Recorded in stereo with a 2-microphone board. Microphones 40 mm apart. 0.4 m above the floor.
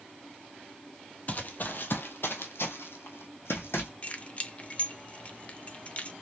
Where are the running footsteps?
35° left (ahead or behind), 0.8 m; by 3.9 s 70° left (ahead or behind), 1.5 m.